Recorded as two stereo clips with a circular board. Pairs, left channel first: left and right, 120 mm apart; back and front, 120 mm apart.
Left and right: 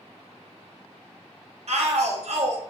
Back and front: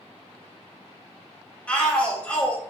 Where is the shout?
100° right, 0.6 m.